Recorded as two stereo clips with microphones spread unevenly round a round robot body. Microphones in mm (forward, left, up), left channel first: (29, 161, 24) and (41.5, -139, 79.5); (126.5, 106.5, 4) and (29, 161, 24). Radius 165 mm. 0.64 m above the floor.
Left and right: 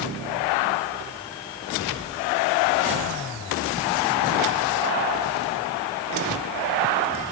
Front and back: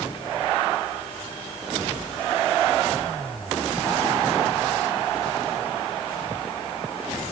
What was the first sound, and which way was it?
Only background noise.